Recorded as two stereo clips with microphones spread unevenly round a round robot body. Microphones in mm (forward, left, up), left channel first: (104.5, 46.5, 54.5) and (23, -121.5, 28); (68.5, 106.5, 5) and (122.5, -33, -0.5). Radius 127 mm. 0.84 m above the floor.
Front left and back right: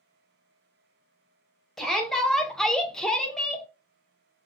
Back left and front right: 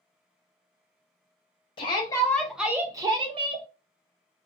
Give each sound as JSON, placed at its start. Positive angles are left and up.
{"t": 1.8, "sound": "a shout", "azimuth_deg": 160, "distance_m": 0.7}